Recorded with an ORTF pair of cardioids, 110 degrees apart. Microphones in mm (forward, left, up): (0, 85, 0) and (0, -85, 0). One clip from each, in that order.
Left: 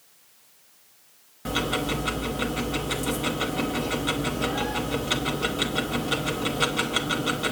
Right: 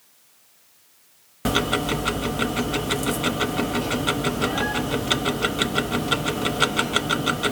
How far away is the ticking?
About 0.9 m.